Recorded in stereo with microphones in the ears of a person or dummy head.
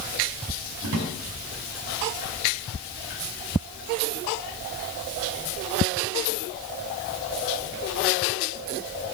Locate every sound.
0.8 s a drawer: 70° right (ahead or behind), 3.5 m